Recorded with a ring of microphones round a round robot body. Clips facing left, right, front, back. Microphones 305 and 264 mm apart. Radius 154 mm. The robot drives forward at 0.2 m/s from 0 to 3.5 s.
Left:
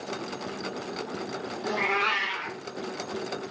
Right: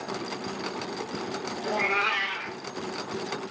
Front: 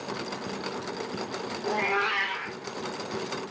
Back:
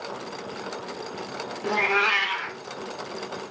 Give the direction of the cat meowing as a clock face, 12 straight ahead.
7 o'clock.